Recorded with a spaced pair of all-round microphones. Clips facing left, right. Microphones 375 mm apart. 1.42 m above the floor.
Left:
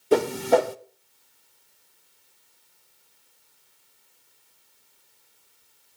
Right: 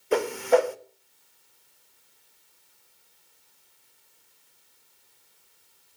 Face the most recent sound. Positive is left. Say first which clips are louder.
# left 2 dB
turn(degrees=50)  # may be behind; listen again after turning